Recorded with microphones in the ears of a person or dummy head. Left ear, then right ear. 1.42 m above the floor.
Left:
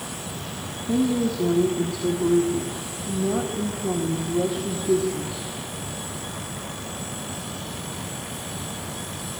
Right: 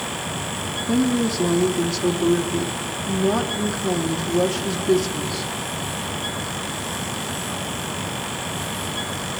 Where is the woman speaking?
75° right (ahead or behind), 3.5 m.